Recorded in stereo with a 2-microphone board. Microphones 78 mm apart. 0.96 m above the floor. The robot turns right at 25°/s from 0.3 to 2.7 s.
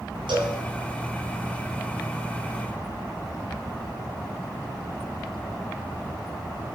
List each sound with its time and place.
0.3 s a cowbell: 80° right, 4 m